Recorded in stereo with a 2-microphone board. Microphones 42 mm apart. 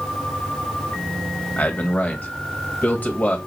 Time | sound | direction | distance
1.6 | a man speaking | 45° left (ahead or behind) | 1.5 m